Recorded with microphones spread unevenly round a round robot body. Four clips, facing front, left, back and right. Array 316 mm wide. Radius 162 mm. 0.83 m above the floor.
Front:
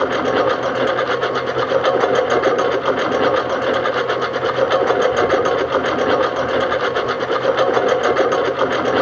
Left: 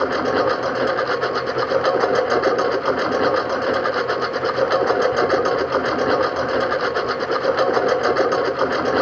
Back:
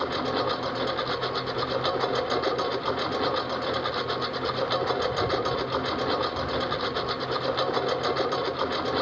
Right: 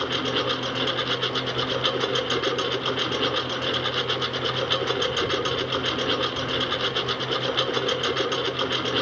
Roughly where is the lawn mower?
Ahead left.